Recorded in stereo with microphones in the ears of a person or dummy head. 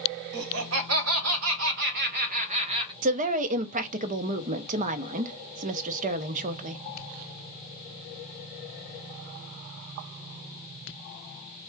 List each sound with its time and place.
0.3 s laughter: 75° right (ahead or behind), 1.3 m; by 2.9 s 25° right (ahead or behind), 1.0 m
3.0 s a woman speaking: 45° right (ahead or behind), 0.6 m